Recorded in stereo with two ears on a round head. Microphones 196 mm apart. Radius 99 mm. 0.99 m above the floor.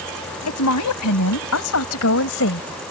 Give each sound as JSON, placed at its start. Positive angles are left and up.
{"t": 0.5, "sound": "a woman speaking", "side_deg": 80}